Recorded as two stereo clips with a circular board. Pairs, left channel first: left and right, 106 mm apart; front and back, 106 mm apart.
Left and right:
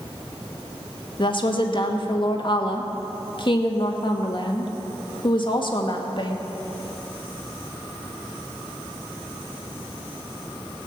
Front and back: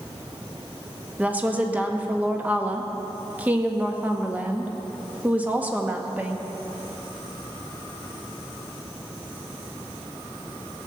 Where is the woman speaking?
105° left, 1.5 m.